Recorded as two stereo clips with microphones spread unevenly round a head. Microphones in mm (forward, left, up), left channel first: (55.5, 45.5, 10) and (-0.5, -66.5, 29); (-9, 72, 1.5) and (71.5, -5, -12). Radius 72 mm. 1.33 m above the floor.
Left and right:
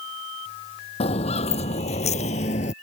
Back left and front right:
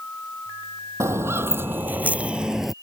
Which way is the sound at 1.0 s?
25° left.